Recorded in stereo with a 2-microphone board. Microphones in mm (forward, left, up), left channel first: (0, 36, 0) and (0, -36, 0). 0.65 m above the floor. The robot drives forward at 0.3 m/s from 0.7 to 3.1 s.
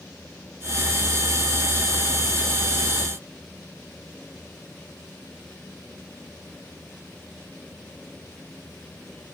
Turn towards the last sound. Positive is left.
No sound to turn to.